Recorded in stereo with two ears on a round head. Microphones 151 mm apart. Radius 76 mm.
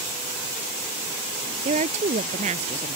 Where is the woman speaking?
45° right (ahead or behind).